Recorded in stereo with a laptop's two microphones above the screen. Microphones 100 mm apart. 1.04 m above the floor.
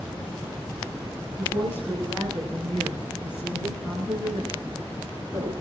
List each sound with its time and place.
1.4 s a woman speaking: 20° left (ahead or behind), 8 m; by 5.5 s 25° left (ahead or behind), 10 m